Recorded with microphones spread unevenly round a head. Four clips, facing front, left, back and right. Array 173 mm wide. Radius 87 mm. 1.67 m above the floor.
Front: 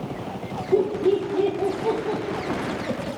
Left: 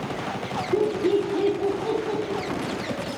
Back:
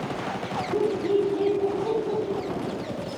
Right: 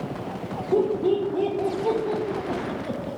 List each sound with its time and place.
0.7 s laughter: 50° right, 3 m; by 3.2 s 20° right, 2.5 m